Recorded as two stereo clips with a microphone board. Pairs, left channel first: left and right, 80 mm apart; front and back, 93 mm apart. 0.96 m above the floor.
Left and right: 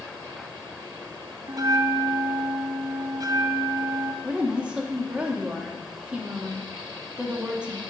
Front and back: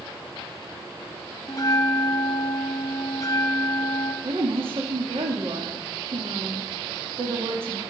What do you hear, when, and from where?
1.5 s a bell: 50° right, 0.8 m
4.2 s a woman speaking: 165° right, 1.8 m